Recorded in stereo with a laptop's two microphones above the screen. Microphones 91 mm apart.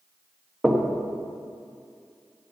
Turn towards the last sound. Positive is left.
turn(degrees=-5)  # may be behind; listen again after turning